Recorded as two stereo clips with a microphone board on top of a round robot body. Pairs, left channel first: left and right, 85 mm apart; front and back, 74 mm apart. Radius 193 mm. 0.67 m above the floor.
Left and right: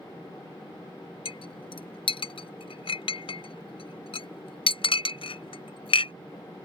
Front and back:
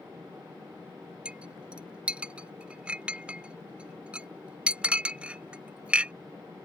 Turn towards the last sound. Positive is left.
turn(degrees=105)